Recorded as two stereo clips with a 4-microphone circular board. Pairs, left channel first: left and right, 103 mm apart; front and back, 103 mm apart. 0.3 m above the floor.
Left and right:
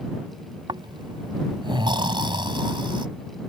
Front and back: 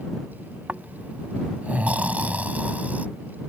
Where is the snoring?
110° right.